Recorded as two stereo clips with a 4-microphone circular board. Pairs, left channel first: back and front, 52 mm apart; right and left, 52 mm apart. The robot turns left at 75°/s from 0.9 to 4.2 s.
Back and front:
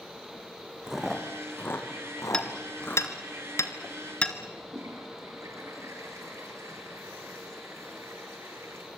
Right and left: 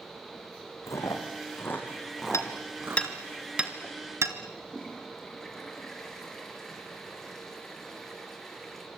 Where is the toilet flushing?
5° right, 4.5 m.